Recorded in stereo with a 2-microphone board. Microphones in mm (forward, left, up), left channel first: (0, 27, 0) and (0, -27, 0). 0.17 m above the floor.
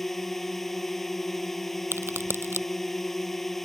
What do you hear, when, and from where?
0.0 s a drone: 5° left (ahead or behind)
1.9 s a crack: 50° right (ahead or behind)